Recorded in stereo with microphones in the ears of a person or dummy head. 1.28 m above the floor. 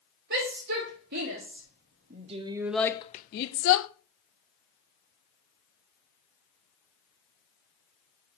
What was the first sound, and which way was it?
A shout, 65° right (ahead or behind).